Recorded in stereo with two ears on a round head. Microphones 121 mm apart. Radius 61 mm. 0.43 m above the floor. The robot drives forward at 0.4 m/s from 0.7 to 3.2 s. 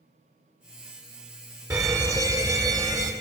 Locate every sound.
1.7 s a fire alarm: 25° right (ahead or behind), 2 m; by 3.1 s 30° right (ahead or behind), 1.9 m